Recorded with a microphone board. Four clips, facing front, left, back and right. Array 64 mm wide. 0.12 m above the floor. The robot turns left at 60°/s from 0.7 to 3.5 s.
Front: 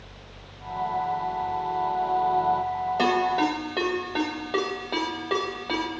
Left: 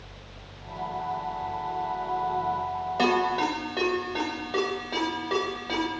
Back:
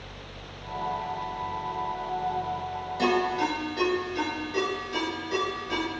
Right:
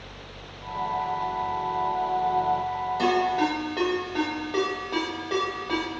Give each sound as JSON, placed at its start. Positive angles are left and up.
{"t": 3.0, "sound": "a ringtone", "azimuth_deg": 35, "distance_m": 3.0}